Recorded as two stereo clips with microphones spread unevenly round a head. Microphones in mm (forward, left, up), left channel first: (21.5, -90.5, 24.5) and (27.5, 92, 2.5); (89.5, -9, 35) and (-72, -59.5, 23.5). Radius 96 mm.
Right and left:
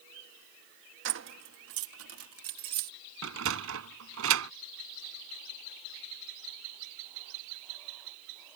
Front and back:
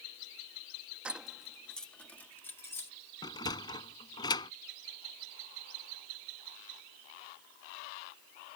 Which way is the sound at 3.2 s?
85° left.